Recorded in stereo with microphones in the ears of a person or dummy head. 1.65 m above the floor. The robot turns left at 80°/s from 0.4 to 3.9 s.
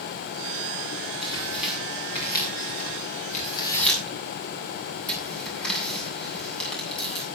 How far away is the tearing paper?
About 8 m.